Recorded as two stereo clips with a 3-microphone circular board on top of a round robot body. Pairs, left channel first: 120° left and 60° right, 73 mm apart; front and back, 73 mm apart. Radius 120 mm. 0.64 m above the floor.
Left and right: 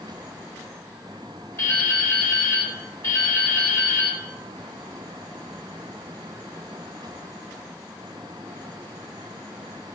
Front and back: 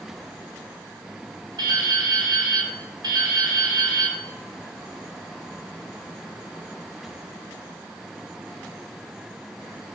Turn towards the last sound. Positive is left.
turn(degrees=170)